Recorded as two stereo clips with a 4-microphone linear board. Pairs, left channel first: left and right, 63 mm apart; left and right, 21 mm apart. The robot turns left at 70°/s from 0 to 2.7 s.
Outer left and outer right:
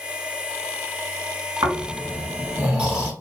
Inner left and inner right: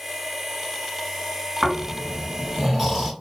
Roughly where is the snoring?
Right.